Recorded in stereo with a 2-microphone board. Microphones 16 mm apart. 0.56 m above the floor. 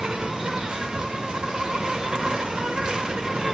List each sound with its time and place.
0.0 s an insect: 80° right, 1.0 m